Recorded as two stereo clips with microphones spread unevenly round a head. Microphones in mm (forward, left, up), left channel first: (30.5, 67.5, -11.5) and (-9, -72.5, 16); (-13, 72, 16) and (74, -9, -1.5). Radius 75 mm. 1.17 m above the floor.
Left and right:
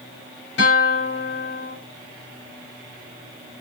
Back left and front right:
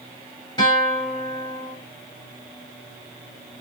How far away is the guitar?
About 7 m.